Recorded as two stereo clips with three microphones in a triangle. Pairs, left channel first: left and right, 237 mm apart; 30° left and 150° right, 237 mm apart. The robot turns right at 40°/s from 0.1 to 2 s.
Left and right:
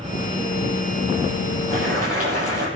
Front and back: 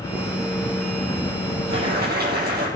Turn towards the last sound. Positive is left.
turn(degrees=-100)